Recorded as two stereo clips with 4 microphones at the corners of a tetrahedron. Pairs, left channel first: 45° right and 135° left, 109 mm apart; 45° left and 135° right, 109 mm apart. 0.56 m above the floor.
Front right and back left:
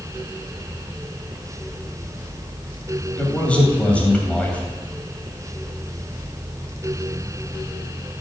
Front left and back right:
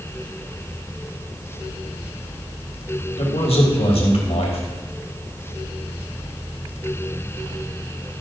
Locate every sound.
3.2 s a man speaking: 30° left, 3 m